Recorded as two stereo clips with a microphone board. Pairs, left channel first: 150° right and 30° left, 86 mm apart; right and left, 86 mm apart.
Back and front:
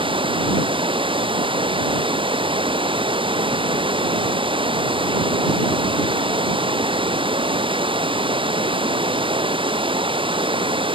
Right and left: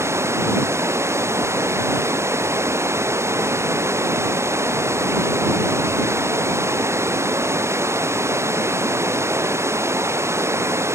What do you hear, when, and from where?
0.0 s running water: 30° left